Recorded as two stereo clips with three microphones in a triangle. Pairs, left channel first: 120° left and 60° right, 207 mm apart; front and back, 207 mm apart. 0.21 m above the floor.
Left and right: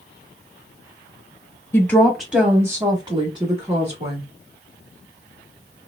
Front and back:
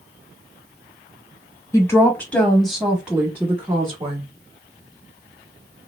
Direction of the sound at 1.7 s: 55° left.